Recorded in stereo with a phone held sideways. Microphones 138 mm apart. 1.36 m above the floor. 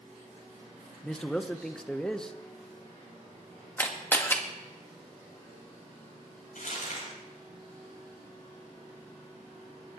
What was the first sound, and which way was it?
A man speaking, 5° left (ahead or behind).